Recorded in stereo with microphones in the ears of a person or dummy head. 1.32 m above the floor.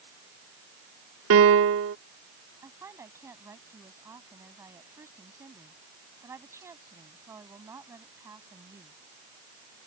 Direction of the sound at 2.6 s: 15° right (ahead or behind).